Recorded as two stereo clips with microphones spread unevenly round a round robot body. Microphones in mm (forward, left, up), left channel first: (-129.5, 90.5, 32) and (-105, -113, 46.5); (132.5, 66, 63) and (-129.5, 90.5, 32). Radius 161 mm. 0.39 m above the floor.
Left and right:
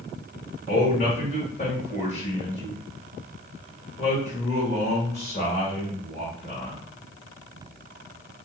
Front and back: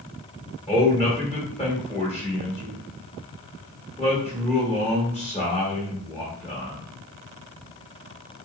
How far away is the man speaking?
About 1.6 m.